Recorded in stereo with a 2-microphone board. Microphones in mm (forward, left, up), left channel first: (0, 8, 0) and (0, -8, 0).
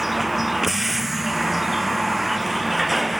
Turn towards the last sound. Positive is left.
turn(degrees=-20)  # may be behind; listen again after turning